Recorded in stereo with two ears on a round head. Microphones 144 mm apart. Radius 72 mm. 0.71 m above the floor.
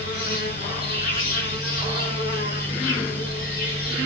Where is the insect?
55° left (ahead or behind), 1.3 m.